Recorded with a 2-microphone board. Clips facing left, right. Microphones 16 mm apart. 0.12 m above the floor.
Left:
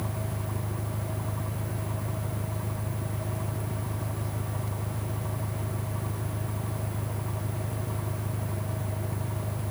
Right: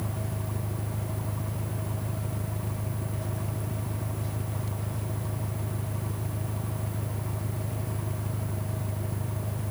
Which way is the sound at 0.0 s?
10° right (ahead or behind).